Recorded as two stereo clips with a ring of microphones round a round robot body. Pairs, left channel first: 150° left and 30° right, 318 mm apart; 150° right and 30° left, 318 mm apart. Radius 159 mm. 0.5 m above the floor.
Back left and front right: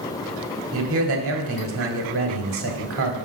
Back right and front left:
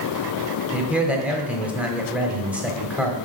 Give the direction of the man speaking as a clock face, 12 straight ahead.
2 o'clock.